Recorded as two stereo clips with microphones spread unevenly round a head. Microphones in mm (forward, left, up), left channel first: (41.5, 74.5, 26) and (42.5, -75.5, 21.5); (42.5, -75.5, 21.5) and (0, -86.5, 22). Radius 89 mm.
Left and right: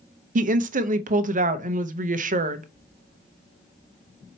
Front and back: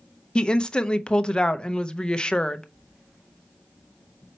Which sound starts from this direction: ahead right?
A woman speaking, at 0.3 s.